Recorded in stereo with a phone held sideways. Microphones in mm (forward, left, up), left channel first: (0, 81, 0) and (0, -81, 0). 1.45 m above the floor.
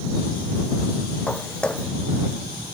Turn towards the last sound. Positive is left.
turn(degrees=5)  # may be behind; listen again after turning